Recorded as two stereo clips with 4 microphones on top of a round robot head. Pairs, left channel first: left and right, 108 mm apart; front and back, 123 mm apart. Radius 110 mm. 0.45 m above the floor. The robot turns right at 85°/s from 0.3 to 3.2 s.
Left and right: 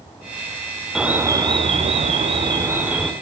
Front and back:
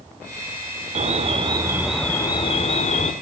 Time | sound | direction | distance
0.9 | an alarm | 175° right | 1.2 m